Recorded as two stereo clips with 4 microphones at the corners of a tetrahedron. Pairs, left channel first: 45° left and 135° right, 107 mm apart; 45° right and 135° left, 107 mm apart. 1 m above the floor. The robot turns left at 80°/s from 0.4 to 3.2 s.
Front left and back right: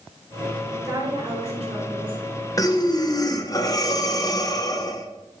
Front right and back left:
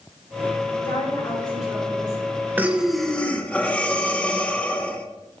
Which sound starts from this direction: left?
Breathing, at 2.6 s.